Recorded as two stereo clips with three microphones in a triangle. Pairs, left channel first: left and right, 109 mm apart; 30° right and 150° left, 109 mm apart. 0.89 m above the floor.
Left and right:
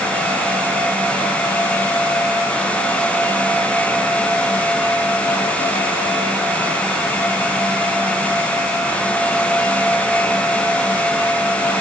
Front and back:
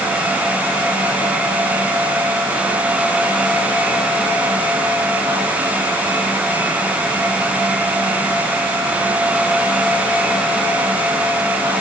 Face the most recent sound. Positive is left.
No sound to turn to.